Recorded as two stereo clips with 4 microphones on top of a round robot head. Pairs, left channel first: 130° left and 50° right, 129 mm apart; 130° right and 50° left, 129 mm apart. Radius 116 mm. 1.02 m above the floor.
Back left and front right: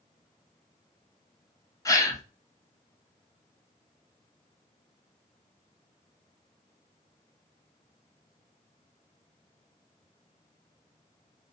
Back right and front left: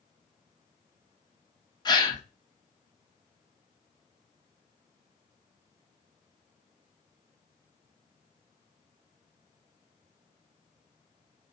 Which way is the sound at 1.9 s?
175° right.